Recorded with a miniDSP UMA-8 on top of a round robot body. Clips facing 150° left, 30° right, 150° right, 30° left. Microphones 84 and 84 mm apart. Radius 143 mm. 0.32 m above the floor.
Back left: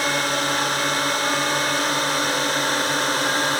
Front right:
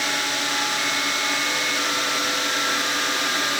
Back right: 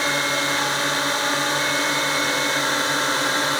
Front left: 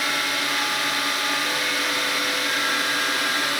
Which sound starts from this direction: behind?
A drone, at 0.0 s.